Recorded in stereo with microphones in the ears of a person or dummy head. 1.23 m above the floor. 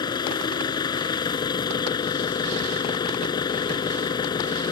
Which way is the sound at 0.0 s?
30° left (ahead or behind).